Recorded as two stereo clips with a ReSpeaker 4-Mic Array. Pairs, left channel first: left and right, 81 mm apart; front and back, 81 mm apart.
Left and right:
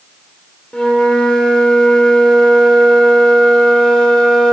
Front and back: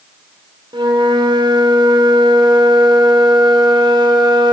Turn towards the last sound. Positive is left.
turn(degrees=170)